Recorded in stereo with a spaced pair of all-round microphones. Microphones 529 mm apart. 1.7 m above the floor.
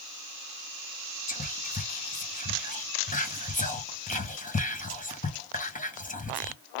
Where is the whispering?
15° left (ahead or behind), 1.0 m.